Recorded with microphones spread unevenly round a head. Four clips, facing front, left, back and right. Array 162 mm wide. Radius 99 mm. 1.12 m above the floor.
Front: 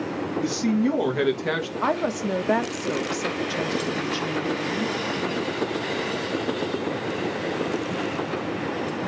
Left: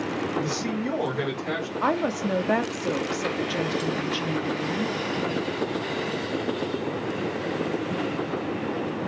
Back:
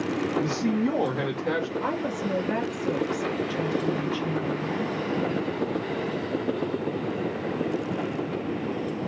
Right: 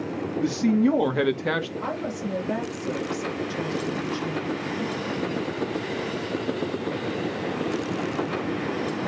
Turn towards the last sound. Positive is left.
turn(degrees=40)